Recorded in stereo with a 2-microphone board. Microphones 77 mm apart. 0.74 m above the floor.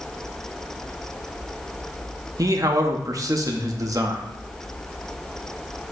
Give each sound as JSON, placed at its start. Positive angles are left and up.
{"t": 2.4, "sound": "a man speaking", "side_deg": -45, "distance_m": 0.9}